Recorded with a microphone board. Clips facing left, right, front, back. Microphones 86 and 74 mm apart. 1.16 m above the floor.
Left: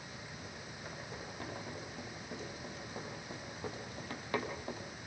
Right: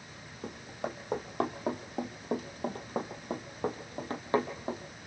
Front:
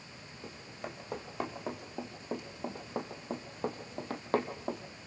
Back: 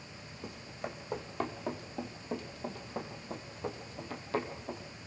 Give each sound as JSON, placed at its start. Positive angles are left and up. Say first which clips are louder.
{"t": 0.4, "sound": "running footsteps", "louder": "right 9 dB, back 2 dB", "azimuth_deg": -95, "distance_m": 3.5}